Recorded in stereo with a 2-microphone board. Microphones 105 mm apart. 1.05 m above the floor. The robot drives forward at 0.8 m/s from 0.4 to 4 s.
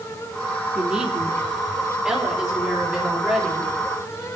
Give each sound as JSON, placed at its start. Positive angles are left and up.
{"t": 0.8, "sound": "a woman speaking", "side_deg": -10, "distance_m": 2.0}